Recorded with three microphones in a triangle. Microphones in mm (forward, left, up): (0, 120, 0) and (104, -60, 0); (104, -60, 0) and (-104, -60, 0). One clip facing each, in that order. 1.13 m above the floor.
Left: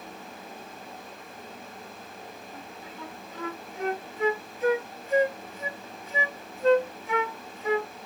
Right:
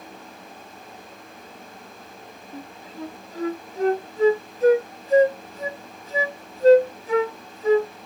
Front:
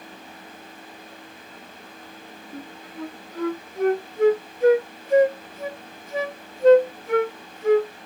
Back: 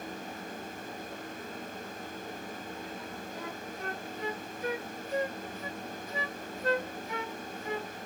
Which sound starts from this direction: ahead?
A flute, at 2.5 s.